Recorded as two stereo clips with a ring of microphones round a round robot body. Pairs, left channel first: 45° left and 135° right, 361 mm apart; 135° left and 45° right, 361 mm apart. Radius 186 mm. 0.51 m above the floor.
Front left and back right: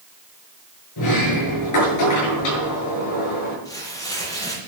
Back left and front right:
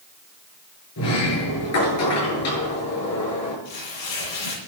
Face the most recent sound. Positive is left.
turn(degrees=125)